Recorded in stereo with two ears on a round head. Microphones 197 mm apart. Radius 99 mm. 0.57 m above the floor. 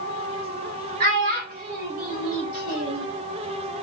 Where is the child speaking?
40° right (ahead or behind), 1.5 m.